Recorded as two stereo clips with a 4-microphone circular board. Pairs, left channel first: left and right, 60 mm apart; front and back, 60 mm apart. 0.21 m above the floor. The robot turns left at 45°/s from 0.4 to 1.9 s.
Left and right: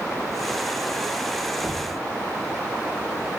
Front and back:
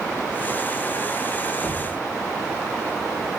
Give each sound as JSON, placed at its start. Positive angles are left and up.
{"t": 1.6, "sound": "knocking", "azimuth_deg": 15, "distance_m": 8.5}